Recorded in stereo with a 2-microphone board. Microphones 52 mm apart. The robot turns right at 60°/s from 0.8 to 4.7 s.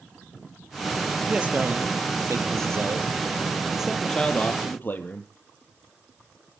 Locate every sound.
1.3 s a man speaking: 160° right, 3.5 m; by 5.3 s 45° left, 3.5 m